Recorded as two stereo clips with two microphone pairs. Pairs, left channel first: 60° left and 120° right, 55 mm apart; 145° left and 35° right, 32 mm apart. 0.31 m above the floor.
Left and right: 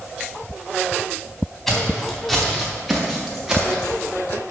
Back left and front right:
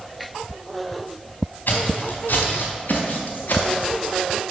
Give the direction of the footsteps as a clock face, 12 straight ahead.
7 o'clock.